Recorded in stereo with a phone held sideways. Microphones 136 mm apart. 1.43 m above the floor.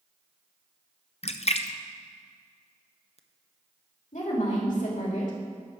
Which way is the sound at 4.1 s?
65° left (ahead or behind).